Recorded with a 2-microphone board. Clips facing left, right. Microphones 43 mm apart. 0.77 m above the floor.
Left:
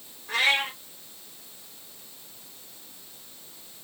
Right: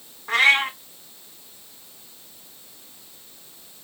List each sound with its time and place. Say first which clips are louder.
0.3 s a cat meowing: right 6 dB; 70° right (ahead or behind), 1.9 m